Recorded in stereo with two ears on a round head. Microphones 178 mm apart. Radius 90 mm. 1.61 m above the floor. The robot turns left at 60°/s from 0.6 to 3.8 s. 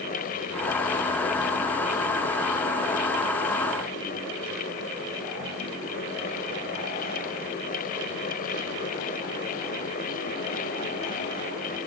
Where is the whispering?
No whispering in this recording.